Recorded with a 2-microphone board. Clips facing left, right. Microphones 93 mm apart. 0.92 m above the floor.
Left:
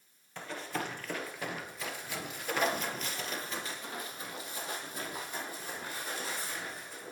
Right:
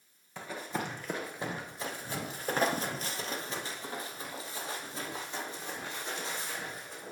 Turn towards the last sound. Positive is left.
turn(degrees=-25)  # may be behind; listen again after turning